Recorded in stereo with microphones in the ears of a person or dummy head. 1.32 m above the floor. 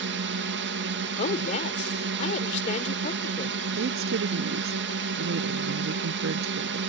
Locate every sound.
0.0 s a drone: 60° right (ahead or behind)
1.2 s a woman speaking: 35° left (ahead or behind)
3.7 s a woman speaking: 65° right (ahead or behind)